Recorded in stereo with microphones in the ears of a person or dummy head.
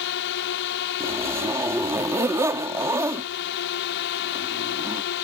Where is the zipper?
15° right (ahead or behind).